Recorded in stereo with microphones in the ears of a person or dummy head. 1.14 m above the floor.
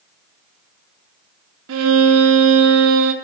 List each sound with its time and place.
1.7 s a violin: 80° right, 1.1 m